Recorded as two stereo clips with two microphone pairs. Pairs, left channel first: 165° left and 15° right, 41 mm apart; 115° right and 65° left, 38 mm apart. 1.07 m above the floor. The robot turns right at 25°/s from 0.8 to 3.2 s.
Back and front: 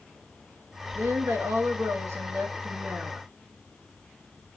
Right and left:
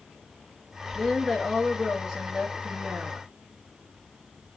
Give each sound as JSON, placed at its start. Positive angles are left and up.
{"t": 0.9, "sound": "a woman speaking", "azimuth_deg": -30, "distance_m": 0.9}